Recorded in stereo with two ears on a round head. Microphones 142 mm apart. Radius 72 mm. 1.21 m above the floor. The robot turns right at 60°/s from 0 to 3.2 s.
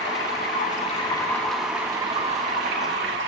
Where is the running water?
85° left, 1.7 m; by 3.3 s 85° right, 1.7 m.